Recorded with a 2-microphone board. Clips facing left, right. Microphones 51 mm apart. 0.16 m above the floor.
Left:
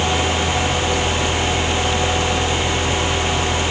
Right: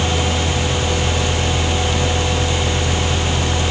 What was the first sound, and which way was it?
Only background noise.